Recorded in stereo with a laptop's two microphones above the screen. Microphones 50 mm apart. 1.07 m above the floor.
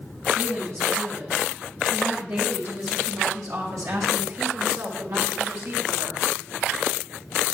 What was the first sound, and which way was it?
A woman speaking, 55° right (ahead or behind).